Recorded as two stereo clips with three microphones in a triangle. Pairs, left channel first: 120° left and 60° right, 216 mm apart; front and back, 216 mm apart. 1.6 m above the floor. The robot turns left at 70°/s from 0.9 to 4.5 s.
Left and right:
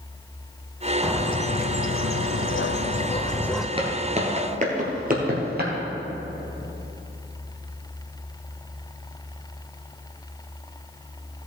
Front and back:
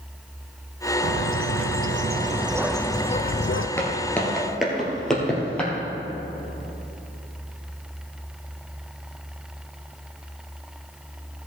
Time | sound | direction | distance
1.0 | a bird | 150° right | 0.5 m
3.8 | footsteps | 60° right | 1.7 m